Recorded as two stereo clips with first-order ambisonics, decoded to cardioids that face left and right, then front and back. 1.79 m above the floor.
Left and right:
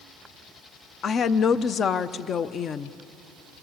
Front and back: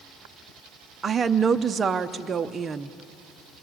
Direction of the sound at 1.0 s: 130° left.